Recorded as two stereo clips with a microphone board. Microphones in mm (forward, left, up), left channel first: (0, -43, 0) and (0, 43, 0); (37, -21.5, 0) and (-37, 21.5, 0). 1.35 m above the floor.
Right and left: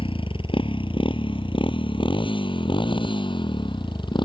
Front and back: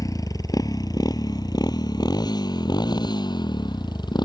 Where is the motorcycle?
80° right; by 4.3 s 65° right.